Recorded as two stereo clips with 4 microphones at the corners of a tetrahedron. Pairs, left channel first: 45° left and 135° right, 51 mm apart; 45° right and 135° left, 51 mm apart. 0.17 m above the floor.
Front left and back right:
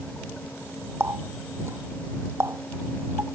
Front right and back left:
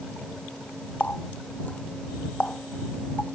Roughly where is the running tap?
Right.